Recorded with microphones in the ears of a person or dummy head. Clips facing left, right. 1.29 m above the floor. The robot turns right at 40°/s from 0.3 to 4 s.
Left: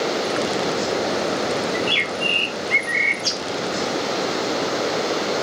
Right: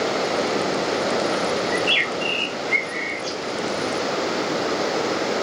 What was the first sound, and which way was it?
A bird, 20° right.